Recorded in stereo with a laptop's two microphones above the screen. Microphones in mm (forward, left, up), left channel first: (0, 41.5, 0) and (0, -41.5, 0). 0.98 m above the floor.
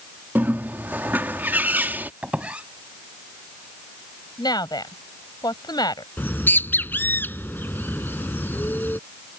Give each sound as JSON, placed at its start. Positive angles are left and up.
{"t": 0.3, "sound": "a bird", "side_deg": -20}
{"t": 2.2, "sound": "a squeak", "side_deg": -15}
{"t": 4.4, "sound": "a woman speaking", "side_deg": 55}
{"t": 6.2, "sound": "a bird", "side_deg": 25}